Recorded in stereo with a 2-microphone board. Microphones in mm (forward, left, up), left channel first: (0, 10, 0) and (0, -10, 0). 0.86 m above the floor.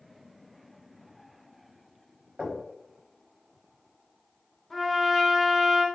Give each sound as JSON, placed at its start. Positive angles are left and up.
{"t": 2.4, "sound": "knocking", "side_deg": -50, "distance_m": 1.0}
{"t": 4.7, "sound": "a trumpet", "side_deg": 10, "distance_m": 0.5}